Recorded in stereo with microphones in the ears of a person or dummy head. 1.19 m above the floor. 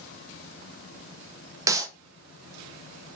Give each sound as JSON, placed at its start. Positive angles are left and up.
{"t": 1.7, "sound": "a clap", "side_deg": -20, "distance_m": 0.9}